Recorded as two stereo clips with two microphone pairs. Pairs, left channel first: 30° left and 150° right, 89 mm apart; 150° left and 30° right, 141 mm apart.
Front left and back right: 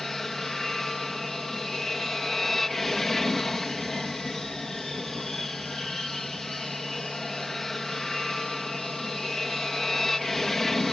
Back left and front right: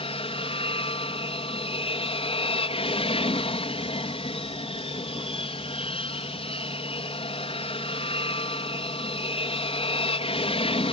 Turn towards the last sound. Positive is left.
turn(degrees=115)